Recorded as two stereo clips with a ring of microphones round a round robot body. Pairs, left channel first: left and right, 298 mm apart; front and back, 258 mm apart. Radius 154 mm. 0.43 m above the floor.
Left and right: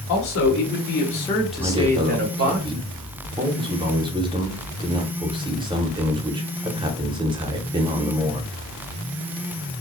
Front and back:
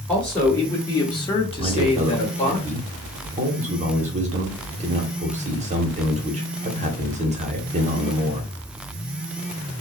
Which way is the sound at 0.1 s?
85° left.